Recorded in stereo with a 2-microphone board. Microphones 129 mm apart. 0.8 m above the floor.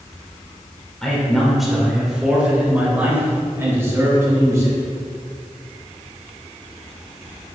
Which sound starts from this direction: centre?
A man speaking, at 1.0 s.